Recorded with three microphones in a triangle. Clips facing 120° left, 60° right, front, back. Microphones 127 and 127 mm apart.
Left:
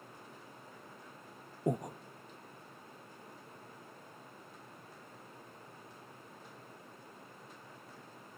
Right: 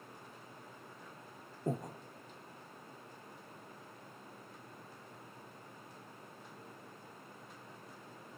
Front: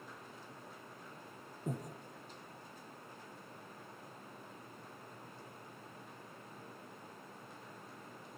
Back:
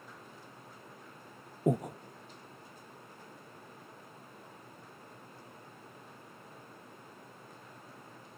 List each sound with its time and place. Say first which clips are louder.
1.7 s breathing: left 4 dB, back 12 dB; 170° right, 1.0 m